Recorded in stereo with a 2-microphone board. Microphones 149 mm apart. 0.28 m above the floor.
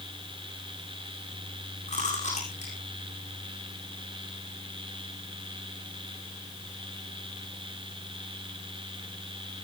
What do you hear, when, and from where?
1.9 s chewing: 50° left (ahead or behind), 9 m